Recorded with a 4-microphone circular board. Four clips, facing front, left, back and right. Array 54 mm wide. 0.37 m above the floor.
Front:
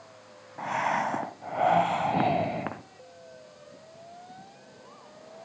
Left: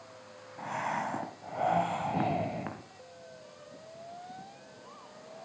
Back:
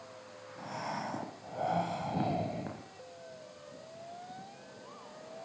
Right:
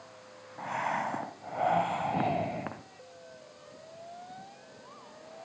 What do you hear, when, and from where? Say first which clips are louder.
0.6 s breathing: right 2 dB, front 11 dB; 5° right, 0.9 m